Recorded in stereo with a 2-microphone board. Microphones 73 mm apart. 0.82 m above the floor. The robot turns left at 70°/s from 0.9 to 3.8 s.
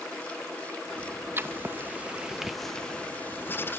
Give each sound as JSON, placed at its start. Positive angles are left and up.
{"t": 1.4, "sound": "writing", "side_deg": -30, "distance_m": 0.9}